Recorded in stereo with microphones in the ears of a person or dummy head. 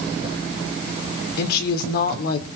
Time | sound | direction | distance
1.4 | a woman speaking | 60° left (ahead or behind) | 3.5 m